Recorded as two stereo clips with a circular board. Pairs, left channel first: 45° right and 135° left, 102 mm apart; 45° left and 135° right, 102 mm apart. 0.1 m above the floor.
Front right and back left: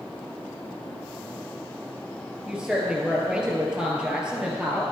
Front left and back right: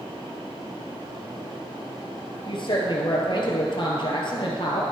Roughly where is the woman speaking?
Ahead left.